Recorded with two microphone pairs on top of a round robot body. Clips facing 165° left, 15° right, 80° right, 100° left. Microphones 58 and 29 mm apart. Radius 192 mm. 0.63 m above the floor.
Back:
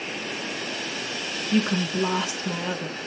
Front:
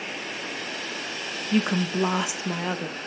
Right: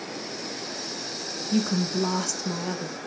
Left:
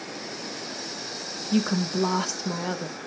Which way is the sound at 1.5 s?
55° left.